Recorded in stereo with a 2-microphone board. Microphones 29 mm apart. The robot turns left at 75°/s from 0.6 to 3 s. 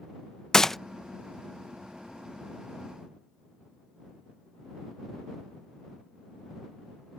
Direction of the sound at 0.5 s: 15° left (ahead or behind).